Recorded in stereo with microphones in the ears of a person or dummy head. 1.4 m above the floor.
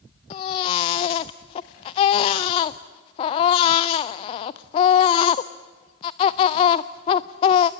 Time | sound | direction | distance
0.3 | a baby crying | 20° left (ahead or behind) | 0.5 m